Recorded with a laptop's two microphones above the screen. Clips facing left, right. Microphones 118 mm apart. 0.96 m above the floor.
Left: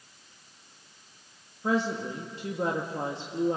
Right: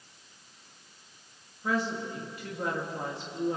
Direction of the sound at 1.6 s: 30° left (ahead or behind).